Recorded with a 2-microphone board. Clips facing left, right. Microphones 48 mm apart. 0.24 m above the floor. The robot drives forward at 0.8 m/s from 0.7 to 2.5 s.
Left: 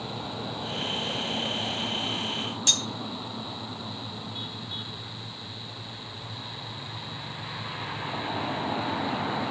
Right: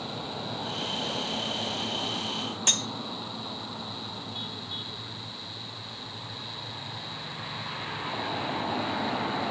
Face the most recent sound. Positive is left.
turn(degrees=-40)  # may be behind; listen again after turning